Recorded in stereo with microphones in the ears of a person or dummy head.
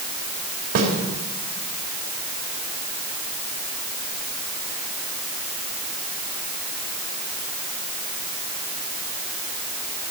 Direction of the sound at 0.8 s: 55° right (ahead or behind).